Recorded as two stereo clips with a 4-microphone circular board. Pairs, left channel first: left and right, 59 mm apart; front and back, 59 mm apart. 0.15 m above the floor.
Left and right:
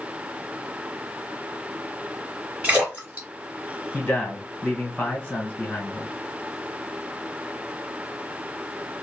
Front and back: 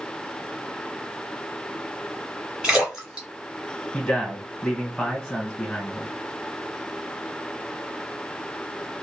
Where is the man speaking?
70° left, 1.5 m.